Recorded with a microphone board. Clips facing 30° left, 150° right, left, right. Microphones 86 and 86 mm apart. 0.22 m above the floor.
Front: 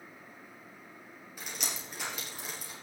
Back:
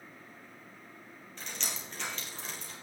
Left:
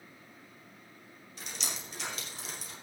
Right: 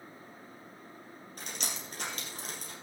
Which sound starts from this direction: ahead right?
Dripping, at 1.4 s.